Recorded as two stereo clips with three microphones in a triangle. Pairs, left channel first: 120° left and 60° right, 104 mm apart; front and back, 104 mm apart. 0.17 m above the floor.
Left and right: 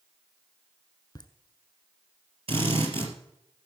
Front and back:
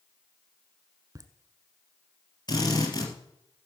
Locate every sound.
1.1 s laughter: 145° left, 1.4 m
2.5 s a drill: 45° right, 3.5 m